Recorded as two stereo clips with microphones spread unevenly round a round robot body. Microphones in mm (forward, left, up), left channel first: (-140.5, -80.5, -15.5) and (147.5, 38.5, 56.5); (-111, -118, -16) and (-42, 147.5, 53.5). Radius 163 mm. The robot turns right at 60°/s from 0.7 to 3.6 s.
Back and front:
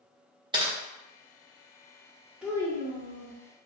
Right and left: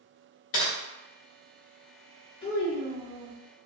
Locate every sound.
0.5 s typing on a keyboard: 45° right, 0.6 m
2.4 s a child speaking: 80° right, 0.5 m; by 3.4 s 25° right, 0.5 m